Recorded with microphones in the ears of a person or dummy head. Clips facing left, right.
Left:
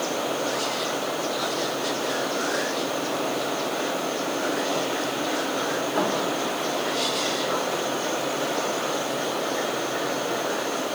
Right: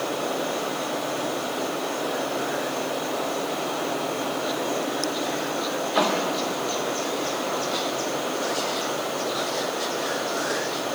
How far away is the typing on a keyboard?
No typing on a keyboard in this recording.